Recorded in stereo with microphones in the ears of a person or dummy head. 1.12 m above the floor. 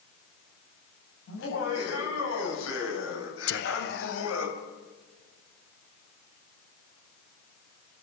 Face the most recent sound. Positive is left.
turn(degrees=50)  # may be behind; listen again after turning